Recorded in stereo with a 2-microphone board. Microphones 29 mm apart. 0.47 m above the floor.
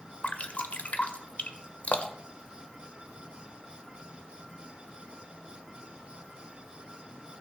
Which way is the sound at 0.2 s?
55° left (ahead or behind).